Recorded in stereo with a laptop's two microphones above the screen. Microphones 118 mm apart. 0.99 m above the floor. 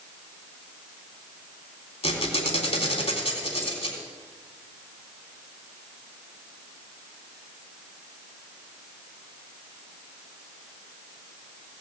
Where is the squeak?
55° left (ahead or behind), 3 m.